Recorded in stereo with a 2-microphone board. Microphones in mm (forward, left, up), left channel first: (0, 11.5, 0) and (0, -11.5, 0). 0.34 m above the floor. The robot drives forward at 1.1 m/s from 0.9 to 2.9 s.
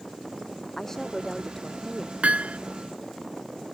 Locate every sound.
0.8 s a woman speaking: 15° left (ahead or behind); by 2.1 s 20° left (ahead or behind)
2.2 s hammering: 75° right (ahead or behind)